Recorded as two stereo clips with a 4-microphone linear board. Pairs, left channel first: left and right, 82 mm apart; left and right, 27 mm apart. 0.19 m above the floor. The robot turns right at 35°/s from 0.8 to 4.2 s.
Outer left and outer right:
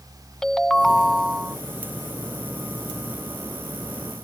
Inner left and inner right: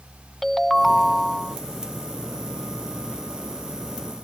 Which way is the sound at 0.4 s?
10° left (ahead or behind).